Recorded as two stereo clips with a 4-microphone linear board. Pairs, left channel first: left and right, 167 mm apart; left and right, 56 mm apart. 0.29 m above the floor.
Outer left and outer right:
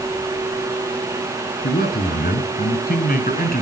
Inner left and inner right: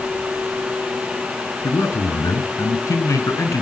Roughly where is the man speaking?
Left.